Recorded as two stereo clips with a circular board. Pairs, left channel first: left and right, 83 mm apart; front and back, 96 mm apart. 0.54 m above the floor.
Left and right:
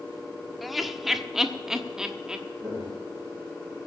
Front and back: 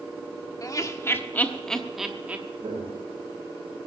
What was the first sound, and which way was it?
Laughter, 5° right.